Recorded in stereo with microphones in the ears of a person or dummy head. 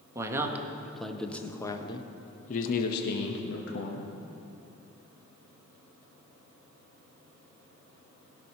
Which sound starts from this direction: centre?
A man speaking, at 0.1 s.